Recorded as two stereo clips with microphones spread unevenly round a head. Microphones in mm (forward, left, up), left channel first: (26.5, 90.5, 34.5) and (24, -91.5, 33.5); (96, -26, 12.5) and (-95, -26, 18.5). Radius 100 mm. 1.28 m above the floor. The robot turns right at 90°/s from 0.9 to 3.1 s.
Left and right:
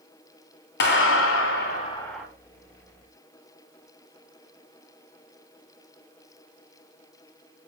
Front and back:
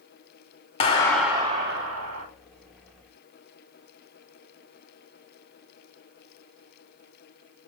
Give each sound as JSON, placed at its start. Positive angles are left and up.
{"t": 0.8, "sound": "a clap", "azimuth_deg": 65, "distance_m": 2.5}